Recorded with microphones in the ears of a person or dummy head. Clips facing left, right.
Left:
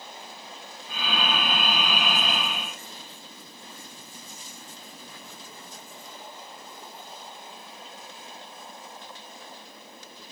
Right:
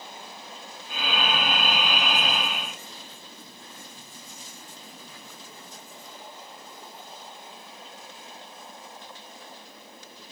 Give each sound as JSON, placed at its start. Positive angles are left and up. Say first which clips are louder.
{"t": 0.9, "sound": "breathing", "louder": "right 1 dB", "side_deg": -15, "distance_m": 6.0}